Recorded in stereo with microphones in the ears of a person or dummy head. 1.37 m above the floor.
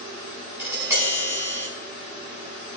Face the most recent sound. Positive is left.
turn(degrees=-10)  # may be behind; listen again after turning